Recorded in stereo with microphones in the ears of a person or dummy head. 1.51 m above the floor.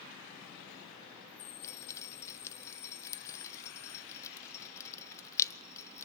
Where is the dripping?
15° left (ahead or behind), 0.8 m.